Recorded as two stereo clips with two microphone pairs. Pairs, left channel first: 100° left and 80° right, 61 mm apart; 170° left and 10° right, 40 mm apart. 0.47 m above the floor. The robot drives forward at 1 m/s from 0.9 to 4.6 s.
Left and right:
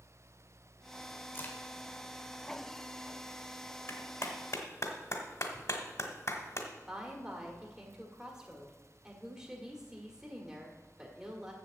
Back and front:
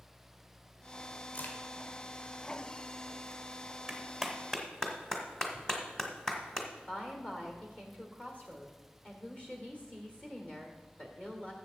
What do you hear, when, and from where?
1.3 s a crack: 140° left, 1.6 m; by 1.6 s 150° left, 1.7 m
3.9 s a clap: 65° left, 1.5 m; by 6.7 s 100° left, 1.4 m
6.9 s a woman speaking: 160° right, 1.6 m